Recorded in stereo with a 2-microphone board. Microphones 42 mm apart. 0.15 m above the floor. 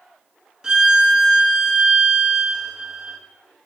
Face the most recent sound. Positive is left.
turn(degrees=-20)  # may be behind; listen again after turning